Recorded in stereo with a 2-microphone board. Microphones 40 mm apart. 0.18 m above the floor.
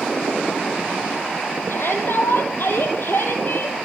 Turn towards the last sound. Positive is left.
turn(degrees=65)  # may be behind; listen again after turning